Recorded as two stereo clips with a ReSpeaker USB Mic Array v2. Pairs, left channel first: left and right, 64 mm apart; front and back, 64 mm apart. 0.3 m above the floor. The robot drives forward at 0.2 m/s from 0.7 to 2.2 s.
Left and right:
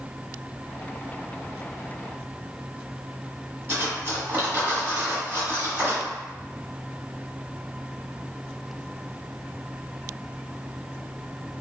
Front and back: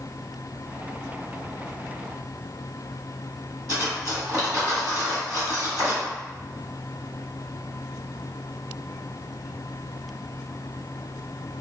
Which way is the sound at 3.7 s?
150° right.